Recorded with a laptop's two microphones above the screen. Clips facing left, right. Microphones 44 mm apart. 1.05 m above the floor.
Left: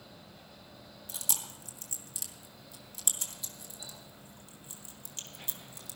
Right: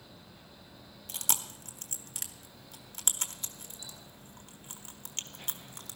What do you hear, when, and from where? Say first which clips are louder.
0.0 s a fan: left 1 dB; 55° left (ahead or behind), 4.5 m
1.1 s chewing: right 5 dB; 55° right (ahead or behind), 1.1 m